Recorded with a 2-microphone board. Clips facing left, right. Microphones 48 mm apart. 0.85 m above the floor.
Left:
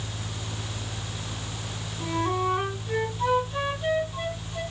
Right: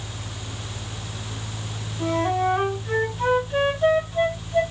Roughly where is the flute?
Right.